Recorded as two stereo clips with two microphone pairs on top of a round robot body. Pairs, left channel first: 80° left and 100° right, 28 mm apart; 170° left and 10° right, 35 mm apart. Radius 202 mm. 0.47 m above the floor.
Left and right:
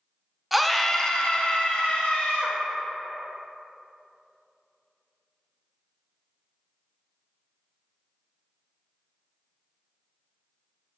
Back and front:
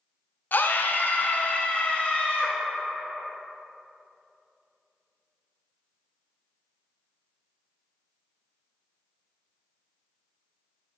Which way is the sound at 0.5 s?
175° left.